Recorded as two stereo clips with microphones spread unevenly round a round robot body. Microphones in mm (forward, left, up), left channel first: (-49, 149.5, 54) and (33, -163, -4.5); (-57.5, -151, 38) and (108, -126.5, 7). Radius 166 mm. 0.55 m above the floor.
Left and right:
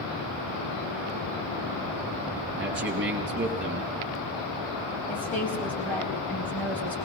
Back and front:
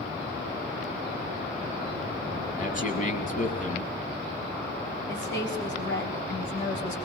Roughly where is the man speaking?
Behind right.